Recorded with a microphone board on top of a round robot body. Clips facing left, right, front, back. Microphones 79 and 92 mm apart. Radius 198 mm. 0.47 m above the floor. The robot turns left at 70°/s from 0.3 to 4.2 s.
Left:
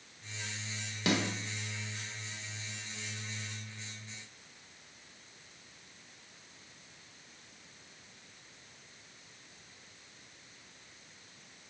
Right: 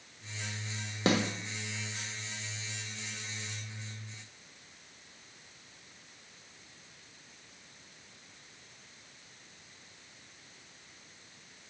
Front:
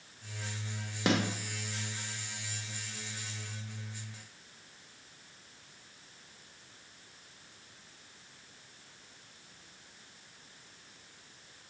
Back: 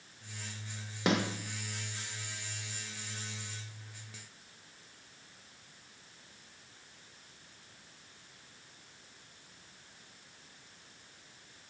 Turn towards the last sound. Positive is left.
turn(degrees=50)